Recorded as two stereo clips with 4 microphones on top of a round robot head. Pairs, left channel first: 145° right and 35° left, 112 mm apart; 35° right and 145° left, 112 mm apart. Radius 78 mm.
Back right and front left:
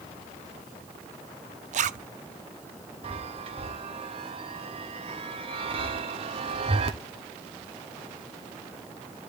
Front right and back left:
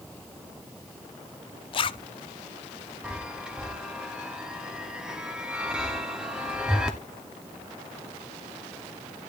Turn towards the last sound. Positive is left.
turn(degrees=60)